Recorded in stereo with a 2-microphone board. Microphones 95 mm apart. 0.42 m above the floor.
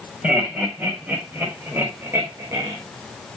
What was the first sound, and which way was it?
Laughter, 15° right (ahead or behind).